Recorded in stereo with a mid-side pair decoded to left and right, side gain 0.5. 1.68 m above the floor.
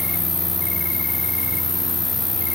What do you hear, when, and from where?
0.0 s an insect: 50° left, 2 m